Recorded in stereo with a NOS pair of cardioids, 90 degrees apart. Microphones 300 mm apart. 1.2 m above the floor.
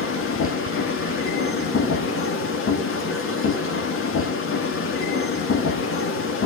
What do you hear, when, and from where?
0.0 s a machine running: 50° left, 1.8 m